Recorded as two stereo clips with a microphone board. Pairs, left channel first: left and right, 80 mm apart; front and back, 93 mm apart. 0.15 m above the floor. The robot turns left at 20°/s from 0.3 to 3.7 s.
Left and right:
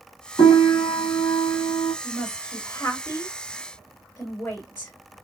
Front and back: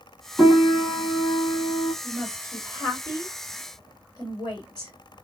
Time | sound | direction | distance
0.4 | a piano | 90° left | 2.5 m
2.0 | a woman speaking | 65° left | 2.5 m